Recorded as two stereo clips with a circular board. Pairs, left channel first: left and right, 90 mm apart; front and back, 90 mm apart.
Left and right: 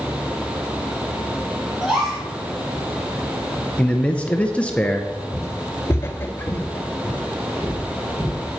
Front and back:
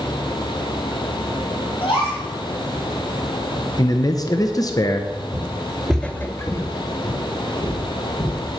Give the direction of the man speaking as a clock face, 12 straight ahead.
11 o'clock.